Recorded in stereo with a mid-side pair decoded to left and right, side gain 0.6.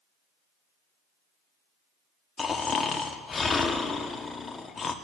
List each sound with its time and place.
2.4 s snoring: 25° left, 1.2 m